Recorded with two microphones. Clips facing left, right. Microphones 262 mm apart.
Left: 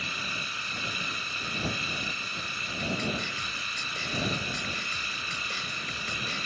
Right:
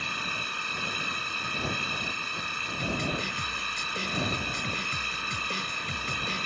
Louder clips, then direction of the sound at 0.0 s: Right 1 dB; 70° right (ahead or behind).